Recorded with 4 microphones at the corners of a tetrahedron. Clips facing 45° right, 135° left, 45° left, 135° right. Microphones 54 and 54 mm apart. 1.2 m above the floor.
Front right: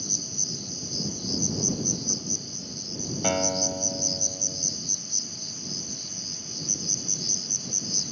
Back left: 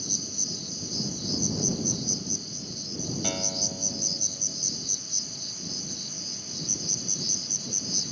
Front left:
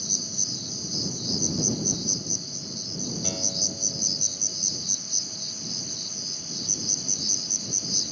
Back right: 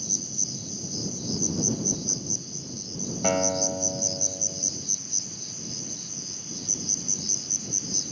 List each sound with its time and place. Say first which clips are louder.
0.0 s an insect: even, even; 80° right
3.2 s a guitar: front right 7 dB, back right 10 dB; 100° right